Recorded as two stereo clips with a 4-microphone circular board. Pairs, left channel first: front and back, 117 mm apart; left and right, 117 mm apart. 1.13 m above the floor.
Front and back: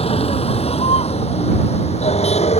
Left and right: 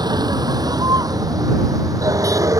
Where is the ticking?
No ticking in this recording.